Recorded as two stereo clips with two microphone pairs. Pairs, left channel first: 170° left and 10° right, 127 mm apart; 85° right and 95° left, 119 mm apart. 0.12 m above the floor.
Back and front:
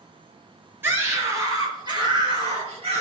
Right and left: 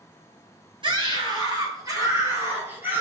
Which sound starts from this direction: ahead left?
A scream, at 0.8 s.